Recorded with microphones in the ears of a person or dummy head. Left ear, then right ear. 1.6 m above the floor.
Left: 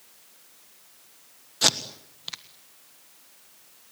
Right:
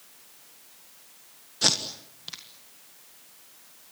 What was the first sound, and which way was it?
Tape being pulled, 25° left (ahead or behind).